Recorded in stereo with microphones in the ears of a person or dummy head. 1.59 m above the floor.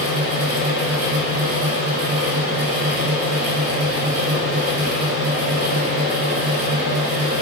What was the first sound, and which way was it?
A fan, 45° right (ahead or behind).